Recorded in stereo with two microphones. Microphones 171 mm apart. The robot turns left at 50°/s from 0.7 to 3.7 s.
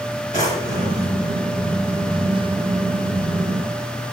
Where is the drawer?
50° left (ahead or behind), 3.5 m; by 1.1 s 30° left (ahead or behind), 3.5 m.